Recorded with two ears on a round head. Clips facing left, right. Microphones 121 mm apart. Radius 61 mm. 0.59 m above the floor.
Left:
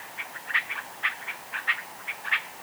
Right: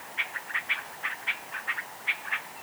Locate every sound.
Only background noise.